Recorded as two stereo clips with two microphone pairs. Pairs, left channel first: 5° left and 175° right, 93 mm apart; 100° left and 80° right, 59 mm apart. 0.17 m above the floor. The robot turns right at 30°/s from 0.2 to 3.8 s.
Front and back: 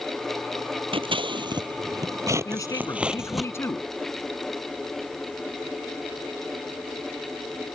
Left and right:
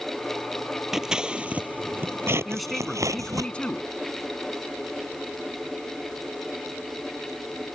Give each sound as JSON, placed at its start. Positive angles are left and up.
{"t": 0.9, "sound": "scissors", "azimuth_deg": -160}
{"t": 2.5, "sound": "a man speaking", "azimuth_deg": 5}